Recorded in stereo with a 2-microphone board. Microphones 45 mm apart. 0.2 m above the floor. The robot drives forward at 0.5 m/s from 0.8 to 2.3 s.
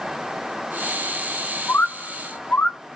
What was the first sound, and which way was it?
A bird, 40° left (ahead or behind).